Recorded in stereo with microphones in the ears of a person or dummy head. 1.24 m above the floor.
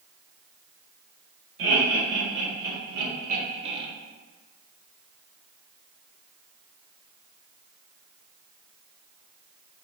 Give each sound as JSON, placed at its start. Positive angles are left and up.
{"t": 1.6, "sound": "laughter", "side_deg": -70, "distance_m": 1.6}